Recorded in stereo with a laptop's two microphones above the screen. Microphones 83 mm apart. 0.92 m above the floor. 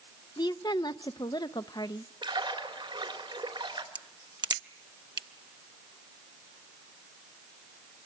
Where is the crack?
60° right (ahead or behind), 0.7 m.